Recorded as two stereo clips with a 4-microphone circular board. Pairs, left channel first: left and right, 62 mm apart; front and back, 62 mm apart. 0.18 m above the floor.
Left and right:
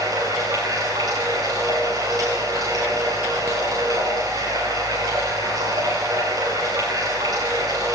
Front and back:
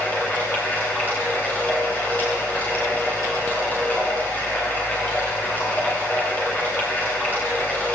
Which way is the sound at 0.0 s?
65° right.